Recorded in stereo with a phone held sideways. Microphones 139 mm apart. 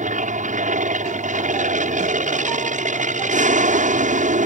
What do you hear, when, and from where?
0.0 s an aircraft: 65° right (ahead or behind)